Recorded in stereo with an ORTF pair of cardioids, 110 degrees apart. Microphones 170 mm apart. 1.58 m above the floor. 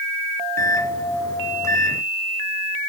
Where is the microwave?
15° left, 0.9 m.